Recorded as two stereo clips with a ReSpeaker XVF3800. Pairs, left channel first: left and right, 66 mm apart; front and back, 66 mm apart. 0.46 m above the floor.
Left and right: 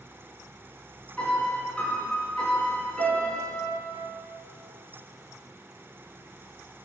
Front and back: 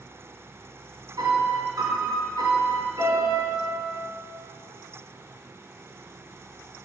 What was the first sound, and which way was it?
A piano, 165° left.